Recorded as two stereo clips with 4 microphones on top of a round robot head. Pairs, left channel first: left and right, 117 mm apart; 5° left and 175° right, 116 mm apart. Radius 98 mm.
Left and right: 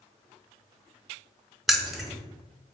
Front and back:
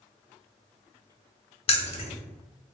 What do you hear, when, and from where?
1.7 s keys jangling: straight ahead, 0.7 m